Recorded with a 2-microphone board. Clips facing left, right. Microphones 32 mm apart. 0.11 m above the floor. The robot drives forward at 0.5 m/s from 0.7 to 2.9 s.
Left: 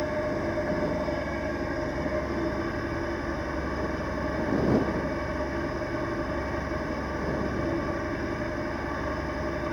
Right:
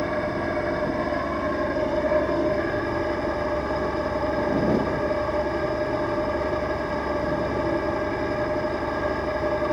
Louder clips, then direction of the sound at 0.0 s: Right 3 dB; 55° right (ahead or behind).